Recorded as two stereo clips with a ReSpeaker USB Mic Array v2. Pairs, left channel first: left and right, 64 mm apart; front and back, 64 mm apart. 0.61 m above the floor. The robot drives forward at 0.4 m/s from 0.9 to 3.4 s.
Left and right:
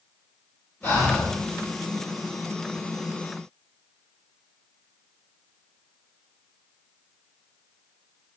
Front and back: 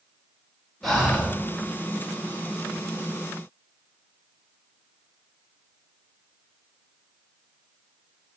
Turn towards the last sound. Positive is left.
turn(degrees=145)